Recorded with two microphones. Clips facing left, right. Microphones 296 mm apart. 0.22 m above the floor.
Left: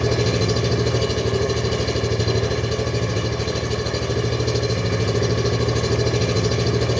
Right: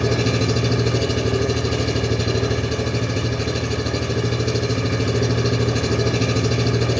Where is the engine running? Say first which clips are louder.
Even; 10° right (ahead or behind), 1.3 m.